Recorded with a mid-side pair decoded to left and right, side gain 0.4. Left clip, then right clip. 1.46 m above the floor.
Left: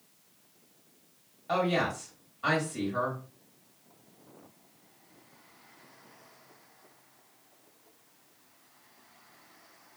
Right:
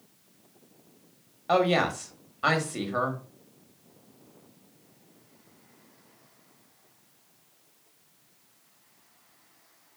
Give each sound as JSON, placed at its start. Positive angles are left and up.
{"t": 1.5, "sound": "a woman speaking", "azimuth_deg": -65, "distance_m": 1.0}